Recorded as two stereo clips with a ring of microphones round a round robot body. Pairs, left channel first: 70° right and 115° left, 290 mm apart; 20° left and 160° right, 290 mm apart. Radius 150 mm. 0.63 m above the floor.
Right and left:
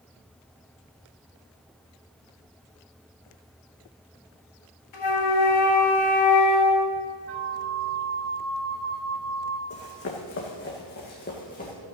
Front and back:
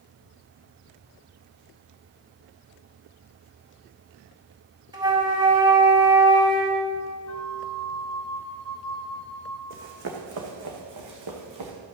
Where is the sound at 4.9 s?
80° right, 2.5 m.